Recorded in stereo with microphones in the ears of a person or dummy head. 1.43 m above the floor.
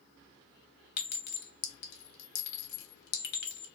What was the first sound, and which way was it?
A clink, 60° left (ahead or behind).